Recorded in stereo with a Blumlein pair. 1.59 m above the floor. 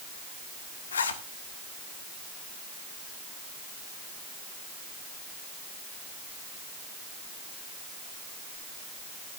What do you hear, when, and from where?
0.9 s a zipper: 70° left, 1.5 m